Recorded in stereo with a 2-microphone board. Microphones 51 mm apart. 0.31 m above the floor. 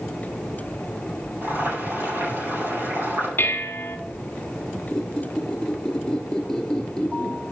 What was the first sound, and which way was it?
Boiling, 45° right (ahead or behind).